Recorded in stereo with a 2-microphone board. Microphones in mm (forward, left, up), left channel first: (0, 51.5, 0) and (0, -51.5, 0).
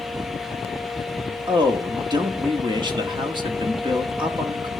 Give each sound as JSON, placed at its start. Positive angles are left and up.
{"t": 1.5, "sound": "a man speaking", "side_deg": -45, "distance_m": 1.5}